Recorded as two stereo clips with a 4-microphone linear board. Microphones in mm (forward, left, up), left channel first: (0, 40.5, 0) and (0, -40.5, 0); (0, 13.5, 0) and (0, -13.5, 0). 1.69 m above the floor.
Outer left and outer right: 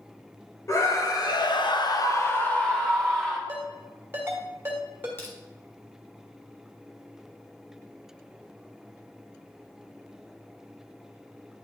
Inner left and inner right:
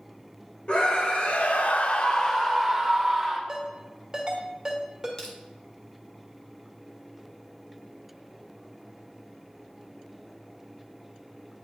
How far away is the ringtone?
About 1.9 m.